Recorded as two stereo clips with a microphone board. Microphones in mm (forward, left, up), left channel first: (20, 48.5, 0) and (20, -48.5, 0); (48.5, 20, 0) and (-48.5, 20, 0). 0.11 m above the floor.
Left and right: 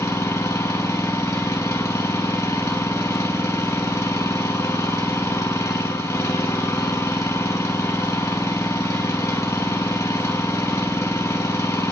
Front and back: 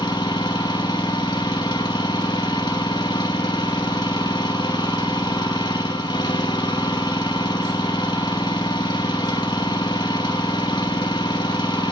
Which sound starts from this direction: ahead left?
An engine running, at 0.0 s.